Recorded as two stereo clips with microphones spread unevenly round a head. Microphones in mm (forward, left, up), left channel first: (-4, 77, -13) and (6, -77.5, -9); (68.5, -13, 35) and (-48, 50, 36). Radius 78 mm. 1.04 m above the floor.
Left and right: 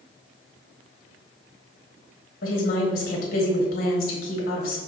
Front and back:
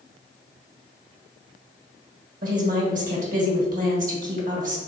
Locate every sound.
2.4 s a woman speaking: 130° left, 1.5 m